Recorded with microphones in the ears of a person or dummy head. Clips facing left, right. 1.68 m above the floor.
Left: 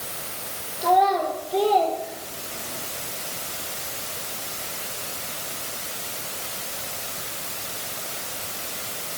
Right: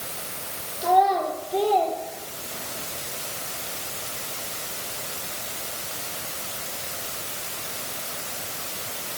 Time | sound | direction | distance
0.8 | a child speaking | 5° right (ahead or behind) | 3.5 m